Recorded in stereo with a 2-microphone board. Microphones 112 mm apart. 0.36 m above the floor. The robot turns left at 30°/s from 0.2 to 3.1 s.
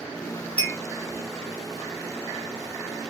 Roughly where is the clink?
Centre.